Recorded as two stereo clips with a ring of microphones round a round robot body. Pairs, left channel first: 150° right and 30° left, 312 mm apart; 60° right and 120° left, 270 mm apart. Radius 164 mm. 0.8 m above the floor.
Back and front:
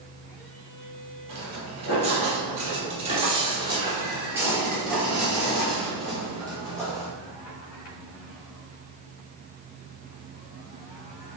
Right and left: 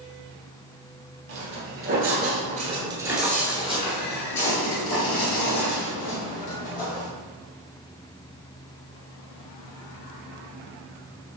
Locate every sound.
1.3 s footsteps: 100° left, 1.3 m; by 7.1 s 65° right, 2 m